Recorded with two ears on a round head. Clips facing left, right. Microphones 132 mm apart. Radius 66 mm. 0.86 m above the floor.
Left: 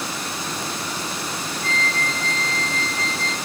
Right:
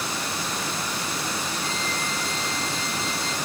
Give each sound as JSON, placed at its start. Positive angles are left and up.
{"t": 1.6, "sound": "a flute", "side_deg": -5, "distance_m": 1.1}